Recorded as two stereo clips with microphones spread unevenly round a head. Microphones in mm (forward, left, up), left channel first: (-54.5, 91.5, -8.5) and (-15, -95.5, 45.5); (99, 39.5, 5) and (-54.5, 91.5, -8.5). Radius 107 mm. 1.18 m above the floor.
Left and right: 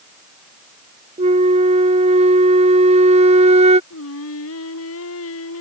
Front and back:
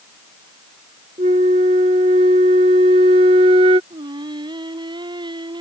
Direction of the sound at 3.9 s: 100° left.